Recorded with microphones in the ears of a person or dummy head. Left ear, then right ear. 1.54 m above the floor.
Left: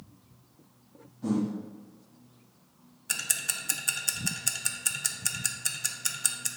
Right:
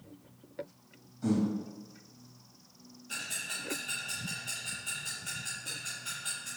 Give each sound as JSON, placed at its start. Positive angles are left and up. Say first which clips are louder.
{"t": 1.2, "sound": "breathing", "louder": "left 1 dB", "side_deg": -25, "distance_m": 2.0}
{"t": 3.1, "sound": "ticking", "louder": "left 5 dB", "side_deg": 65, "distance_m": 0.6}